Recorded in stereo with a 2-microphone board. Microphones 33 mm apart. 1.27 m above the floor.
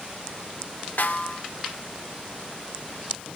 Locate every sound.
1.0 s a snare drum: 70° left (ahead or behind), 1.8 m